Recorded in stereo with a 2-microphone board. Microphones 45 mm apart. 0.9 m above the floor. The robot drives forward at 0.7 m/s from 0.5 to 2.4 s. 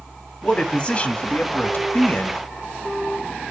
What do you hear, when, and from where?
0.4 s a man speaking: 20° left (ahead or behind), 2 m; by 2.4 s 45° left (ahead or behind), 1.1 m